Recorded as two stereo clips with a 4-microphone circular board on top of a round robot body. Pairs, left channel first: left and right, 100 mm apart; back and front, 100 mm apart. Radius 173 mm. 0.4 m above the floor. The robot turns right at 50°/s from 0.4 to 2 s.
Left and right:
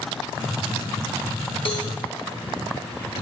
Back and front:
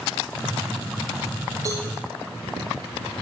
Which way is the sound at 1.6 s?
55° left.